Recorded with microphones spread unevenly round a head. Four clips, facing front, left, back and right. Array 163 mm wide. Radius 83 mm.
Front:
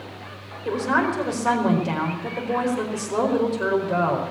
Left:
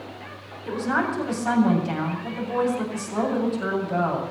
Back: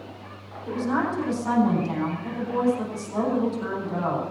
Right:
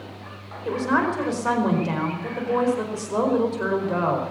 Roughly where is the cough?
No cough in this recording.